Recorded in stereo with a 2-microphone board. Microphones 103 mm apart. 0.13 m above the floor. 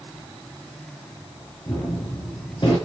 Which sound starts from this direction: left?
A gunshot, at 1.7 s.